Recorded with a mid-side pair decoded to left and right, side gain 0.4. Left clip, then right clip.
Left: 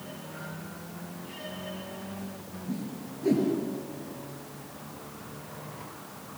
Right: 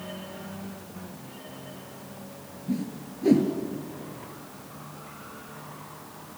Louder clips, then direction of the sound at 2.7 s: Right 5 dB; 40° right.